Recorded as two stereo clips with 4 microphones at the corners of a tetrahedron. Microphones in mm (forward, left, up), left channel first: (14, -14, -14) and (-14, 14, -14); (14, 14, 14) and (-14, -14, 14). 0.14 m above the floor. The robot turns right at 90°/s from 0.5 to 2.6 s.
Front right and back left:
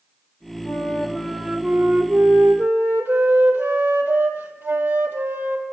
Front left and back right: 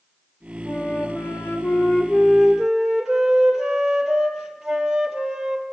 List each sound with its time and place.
0.7 s a flute: 30° right, 2 m; by 5.6 s 145° left, 2 m